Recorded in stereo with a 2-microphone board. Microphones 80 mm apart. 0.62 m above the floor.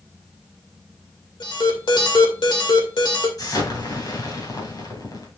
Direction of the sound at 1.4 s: 70° left (ahead or behind).